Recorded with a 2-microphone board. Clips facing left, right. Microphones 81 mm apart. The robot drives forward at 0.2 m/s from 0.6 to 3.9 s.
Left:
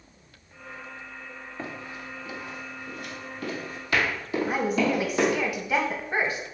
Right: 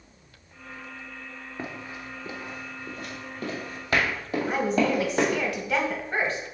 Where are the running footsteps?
15° right (ahead or behind), 0.9 m; by 5.4 s 40° right (ahead or behind), 2.5 m.